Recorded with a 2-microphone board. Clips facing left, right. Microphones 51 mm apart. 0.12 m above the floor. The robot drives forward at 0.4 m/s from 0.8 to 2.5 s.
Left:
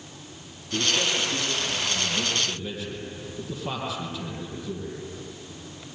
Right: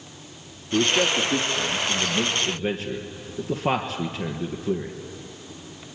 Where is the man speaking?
45° right (ahead or behind), 3 m; by 4.9 s 55° right (ahead or behind), 2.5 m.